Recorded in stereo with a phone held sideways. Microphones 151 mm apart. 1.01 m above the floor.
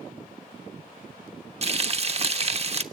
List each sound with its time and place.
1.6 s frying: 45° right (ahead or behind), 0.9 m